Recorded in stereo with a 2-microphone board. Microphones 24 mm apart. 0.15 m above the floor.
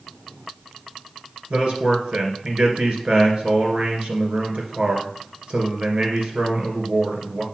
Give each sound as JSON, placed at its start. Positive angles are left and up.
{"t": 1.5, "sound": "a man speaking", "side_deg": -55, "distance_m": 2.5}